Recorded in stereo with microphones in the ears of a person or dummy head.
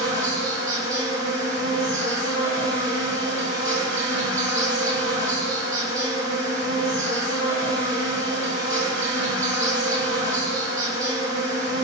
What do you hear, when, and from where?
0.0 s an insect: 15° right (ahead or behind), 1.4 m